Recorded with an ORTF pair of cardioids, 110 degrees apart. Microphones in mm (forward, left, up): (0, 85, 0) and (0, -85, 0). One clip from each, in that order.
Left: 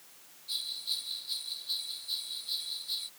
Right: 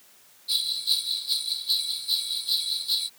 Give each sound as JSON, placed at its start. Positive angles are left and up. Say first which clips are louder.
{"t": 0.5, "sound": "a bell", "louder": "right 10 dB", "azimuth_deg": -55}